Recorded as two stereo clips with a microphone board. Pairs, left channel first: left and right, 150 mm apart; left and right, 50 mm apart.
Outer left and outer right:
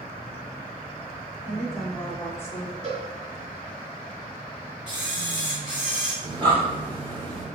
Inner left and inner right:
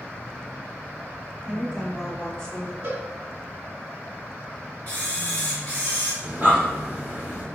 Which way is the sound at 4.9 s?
35° left (ahead or behind).